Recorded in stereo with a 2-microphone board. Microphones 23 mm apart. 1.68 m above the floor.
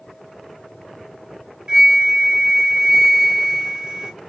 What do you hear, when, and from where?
1.7 s a flute: 35° right (ahead or behind), 0.9 m